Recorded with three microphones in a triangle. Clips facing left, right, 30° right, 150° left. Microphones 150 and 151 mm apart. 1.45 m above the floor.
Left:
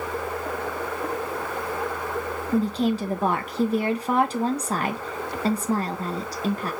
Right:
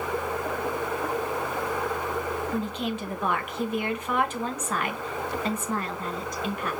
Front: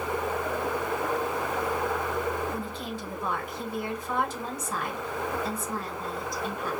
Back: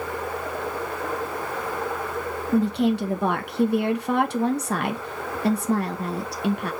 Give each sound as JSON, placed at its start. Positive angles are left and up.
{"t": 2.5, "sound": "a woman speaking", "azimuth_deg": 140, "distance_m": 0.6}